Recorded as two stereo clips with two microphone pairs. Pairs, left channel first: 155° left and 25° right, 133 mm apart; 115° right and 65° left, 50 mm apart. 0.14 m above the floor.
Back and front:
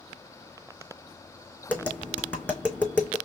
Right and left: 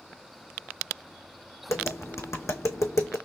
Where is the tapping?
125° right, 2.5 m.